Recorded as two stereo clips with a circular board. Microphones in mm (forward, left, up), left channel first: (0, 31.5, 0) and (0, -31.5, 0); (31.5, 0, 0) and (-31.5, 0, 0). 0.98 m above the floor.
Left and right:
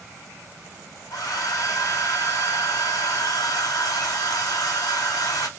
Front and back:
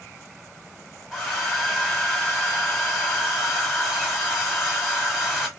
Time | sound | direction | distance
1.1 | a hair dryer | 95° left | 1.5 m